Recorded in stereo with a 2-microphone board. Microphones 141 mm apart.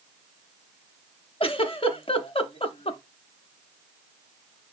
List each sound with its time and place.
1.4 s a giggle: 45° left (ahead or behind), 0.6 m